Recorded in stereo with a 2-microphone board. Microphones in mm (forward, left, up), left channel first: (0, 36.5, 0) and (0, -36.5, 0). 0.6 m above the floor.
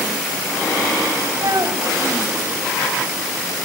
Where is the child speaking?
50° right (ahead or behind), 2 m.